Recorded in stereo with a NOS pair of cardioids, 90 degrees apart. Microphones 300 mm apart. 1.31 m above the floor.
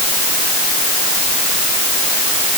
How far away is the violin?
I don't hear a violin.